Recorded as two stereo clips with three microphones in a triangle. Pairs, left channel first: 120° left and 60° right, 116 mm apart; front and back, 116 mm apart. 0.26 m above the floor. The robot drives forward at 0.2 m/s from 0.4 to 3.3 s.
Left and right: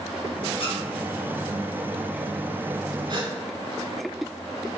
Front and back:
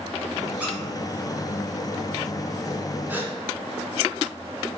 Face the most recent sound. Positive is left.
turn(degrees=-110)